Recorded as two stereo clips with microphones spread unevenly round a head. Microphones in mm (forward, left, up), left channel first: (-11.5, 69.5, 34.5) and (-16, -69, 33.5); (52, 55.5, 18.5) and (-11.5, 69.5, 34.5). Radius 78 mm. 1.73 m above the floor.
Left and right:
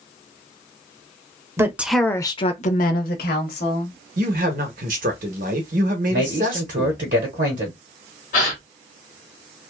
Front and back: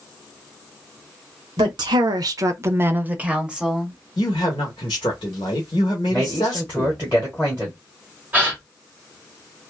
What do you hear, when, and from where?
1.6 s a woman speaking: 165° right, 0.7 m; by 4.0 s 90° left, 1.2 m
4.2 s a man speaking: 65° right, 0.8 m
6.1 s a man speaking: 110° right, 1.1 m
8.3 s a gasp: 115° left, 1.4 m